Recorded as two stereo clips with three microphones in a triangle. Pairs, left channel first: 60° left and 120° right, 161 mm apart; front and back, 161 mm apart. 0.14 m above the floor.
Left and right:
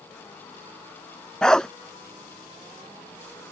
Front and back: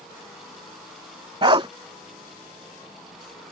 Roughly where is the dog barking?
Behind left.